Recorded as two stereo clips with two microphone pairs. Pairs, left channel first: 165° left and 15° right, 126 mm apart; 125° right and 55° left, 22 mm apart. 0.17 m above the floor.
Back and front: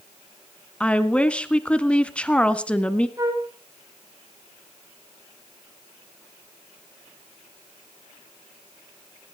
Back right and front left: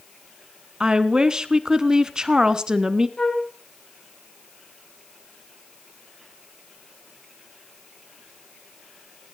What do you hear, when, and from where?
0.8 s a woman speaking: 90° left, 1.4 m
3.2 s a flute: 80° right, 5 m